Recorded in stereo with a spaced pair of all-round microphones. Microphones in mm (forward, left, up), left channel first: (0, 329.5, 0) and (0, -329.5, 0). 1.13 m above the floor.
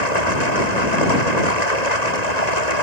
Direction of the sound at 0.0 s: 70° left (ahead or behind).